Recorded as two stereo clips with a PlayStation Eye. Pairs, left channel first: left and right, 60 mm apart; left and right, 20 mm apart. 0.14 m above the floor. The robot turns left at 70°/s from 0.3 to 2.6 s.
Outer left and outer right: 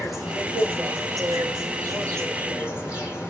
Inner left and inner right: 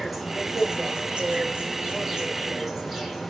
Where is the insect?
5° right, 5.5 m; by 3.3 s 165° right, 5.5 m.